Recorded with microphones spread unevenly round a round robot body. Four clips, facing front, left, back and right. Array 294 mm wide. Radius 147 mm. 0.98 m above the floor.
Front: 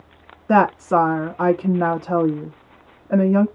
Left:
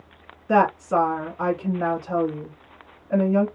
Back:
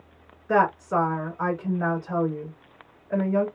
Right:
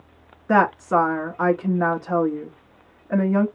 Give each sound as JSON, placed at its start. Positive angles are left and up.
{"t": 0.5, "sound": "a woman speaking", "azimuth_deg": -25, "distance_m": 1.5}